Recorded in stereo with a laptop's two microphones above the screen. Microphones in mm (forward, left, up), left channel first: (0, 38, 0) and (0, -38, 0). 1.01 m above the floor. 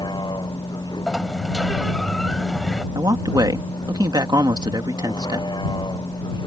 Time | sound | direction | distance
0.0 | a vehicle | 75° left (ahead or behind) | ?
1.1 | a sliding door | 5° left (ahead or behind) | ?
3.0 | a man speaking | 65° right (ahead or behind) | ?